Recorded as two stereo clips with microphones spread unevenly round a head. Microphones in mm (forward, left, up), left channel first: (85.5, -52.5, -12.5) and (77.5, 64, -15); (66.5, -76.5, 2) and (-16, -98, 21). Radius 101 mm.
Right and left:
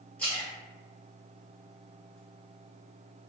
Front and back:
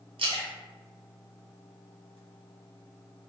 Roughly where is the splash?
Behind.